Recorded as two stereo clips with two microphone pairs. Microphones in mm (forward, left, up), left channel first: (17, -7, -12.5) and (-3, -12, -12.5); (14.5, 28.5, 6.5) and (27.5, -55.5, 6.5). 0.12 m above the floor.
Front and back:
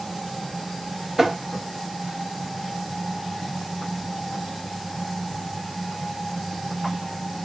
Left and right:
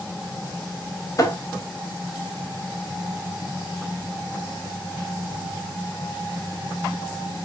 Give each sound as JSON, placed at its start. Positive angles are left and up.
{"t": 1.2, "sound": "tapping", "azimuth_deg": 125, "distance_m": 0.5}